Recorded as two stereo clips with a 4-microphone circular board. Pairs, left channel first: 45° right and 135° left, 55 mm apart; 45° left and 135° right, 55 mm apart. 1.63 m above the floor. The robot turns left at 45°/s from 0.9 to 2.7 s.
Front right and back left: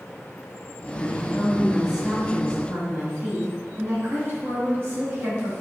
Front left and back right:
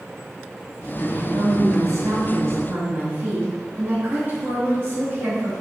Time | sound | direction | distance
1.0 | a woman speaking | 105° right | 3 m